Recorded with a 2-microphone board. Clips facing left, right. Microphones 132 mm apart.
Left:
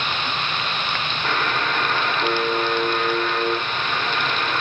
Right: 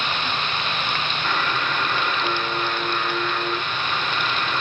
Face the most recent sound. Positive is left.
turn(degrees=70)  # may be behind; listen again after turning